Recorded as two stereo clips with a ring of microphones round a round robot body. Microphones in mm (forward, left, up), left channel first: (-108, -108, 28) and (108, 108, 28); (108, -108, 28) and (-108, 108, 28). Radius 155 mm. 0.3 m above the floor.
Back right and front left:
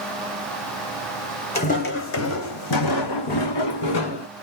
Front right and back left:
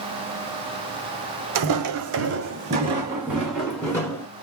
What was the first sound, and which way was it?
Footsteps, 155° left.